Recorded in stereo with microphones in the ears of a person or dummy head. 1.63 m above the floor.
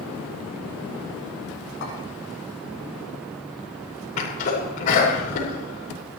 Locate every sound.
1.8 s a clink: 60° left (ahead or behind), 9.5 m
4.2 s a sneeze: 40° left (ahead or behind), 6 m